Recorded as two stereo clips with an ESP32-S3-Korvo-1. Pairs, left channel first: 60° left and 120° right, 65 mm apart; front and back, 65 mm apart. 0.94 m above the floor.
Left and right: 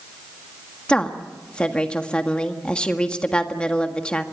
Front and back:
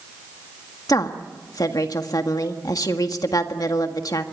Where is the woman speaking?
15° right, 1.6 m.